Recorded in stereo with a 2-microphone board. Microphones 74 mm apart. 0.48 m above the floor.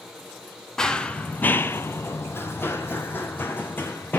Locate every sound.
0.8 s running footsteps: 10° left (ahead or behind), 0.6 m; by 4.2 s 25° left (ahead or behind), 1.6 m